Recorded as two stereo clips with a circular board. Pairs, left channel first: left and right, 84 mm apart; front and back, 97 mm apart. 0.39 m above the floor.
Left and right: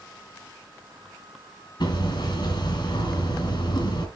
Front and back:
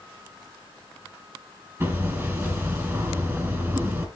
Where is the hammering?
110° left, 2.5 m.